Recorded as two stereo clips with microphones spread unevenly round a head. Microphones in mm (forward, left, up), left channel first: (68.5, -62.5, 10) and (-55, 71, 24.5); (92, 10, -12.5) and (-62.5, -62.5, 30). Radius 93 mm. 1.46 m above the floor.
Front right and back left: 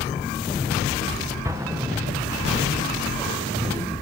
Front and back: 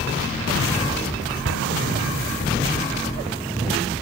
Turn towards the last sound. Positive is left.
turn(degrees=-150)